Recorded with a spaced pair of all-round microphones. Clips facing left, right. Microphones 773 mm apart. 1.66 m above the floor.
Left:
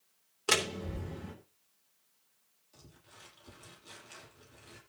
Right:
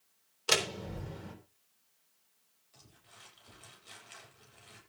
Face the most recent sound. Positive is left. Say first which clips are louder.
# left 4 dB
turn(degrees=65)  # may be behind; listen again after turning